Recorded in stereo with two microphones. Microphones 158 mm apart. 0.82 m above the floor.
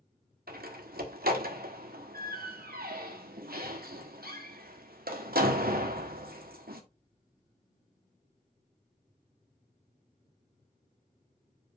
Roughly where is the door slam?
Right.